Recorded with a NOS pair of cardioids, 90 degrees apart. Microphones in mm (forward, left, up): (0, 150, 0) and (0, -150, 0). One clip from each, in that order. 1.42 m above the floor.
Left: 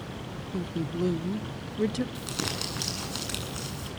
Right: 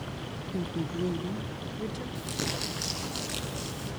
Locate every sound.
0.5 s a woman speaking: straight ahead, 0.9 m; by 2.0 s 50° left, 1.0 m
2.1 s crumpling: 35° left, 8.5 m